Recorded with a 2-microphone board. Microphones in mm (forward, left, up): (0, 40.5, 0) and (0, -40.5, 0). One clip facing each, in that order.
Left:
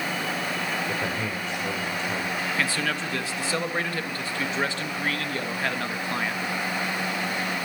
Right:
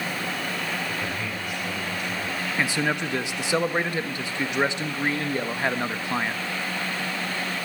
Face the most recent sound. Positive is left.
turn(degrees=-20)  # may be behind; listen again after turning